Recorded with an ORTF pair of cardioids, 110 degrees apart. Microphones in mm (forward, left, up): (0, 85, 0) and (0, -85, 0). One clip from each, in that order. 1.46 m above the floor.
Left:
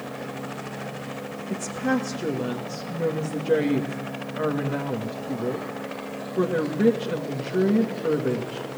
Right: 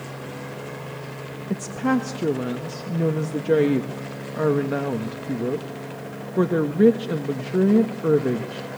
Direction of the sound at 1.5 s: 30° right.